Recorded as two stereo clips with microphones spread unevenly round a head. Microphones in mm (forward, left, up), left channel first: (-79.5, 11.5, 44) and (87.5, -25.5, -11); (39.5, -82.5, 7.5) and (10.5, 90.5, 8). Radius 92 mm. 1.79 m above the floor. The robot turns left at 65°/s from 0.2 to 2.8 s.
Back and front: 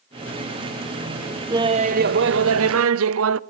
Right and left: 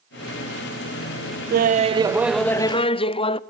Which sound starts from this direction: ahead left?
Laughter, at 1.5 s.